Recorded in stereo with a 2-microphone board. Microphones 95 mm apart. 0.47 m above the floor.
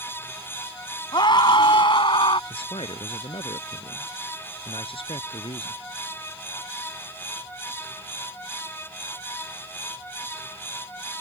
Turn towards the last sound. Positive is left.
turn(degrees=75)  # may be behind; listen again after turning